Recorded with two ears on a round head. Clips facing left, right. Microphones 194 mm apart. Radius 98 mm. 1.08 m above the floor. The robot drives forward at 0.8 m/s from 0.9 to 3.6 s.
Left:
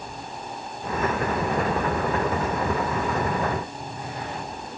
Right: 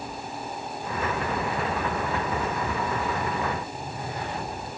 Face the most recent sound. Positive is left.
No sound to turn to.